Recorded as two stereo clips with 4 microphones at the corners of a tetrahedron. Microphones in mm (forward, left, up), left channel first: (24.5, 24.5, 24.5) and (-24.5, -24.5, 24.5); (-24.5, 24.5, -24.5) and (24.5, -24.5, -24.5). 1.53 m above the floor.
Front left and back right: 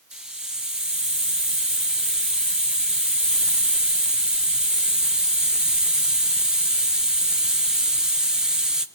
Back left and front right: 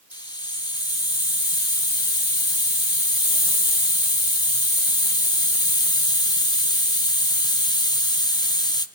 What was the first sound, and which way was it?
A hiss, 145° left.